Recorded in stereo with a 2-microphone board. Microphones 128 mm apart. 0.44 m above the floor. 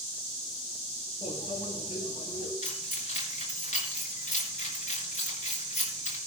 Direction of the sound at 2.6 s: 75° left (ahead or behind).